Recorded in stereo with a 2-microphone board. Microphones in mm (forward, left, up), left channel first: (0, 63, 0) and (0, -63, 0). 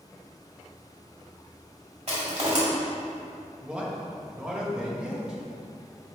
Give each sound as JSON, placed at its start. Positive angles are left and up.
{"t": 2.1, "sound": "crushing", "side_deg": -60, "distance_m": 2.0}
{"t": 3.6, "sound": "a man speaking", "side_deg": -10, "distance_m": 1.2}